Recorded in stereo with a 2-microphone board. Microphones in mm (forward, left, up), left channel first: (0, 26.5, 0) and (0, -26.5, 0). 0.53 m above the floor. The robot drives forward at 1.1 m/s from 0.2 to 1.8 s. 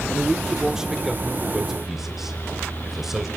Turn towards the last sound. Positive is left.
turn(degrees=-5)  # may be behind; listen again after turning